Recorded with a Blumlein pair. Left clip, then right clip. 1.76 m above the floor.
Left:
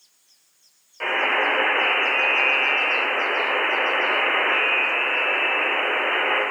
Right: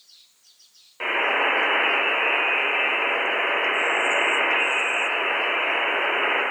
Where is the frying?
No frying in this recording.